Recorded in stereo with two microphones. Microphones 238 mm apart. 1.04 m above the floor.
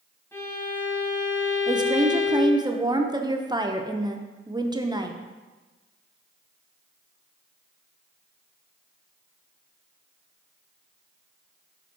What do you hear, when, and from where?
0.3 s a violin: 10° left (ahead or behind), 2 m
1.7 s a woman speaking: 15° right (ahead or behind), 0.7 m